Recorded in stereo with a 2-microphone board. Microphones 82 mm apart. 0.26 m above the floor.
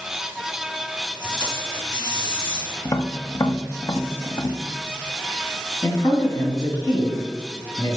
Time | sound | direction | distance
1.2 | tape being pulled | 55° left (ahead or behind) | 3 m
2.9 | tapping | 45° left (ahead or behind) | 0.7 m
5.8 | a man speaking | 40° left (ahead or behind) | 1.5 m